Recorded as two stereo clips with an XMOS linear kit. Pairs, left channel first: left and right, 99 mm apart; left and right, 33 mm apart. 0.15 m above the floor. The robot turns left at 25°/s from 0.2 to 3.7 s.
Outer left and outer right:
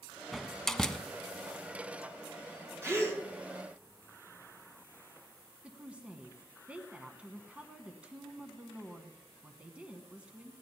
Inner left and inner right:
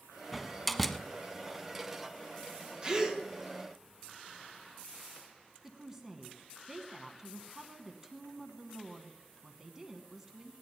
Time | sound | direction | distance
0.3 | a door slam | centre (ahead or behind) | 0.7 m
2.8 | a gasp | 25° right (ahead or behind) | 1.6 m
5.6 | a woman speaking | 15° right (ahead or behind) | 1.1 m